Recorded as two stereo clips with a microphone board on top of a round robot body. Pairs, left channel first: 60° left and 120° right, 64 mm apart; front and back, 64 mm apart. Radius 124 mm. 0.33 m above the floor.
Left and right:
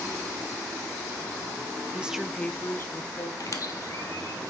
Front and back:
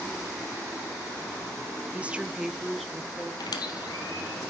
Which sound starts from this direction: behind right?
A woman speaking, at 1.9 s.